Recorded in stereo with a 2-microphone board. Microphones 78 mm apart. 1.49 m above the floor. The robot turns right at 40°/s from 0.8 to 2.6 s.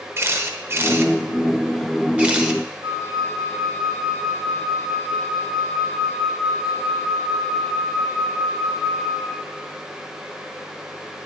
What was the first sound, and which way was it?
A camera shutter, 35° right (ahead or behind).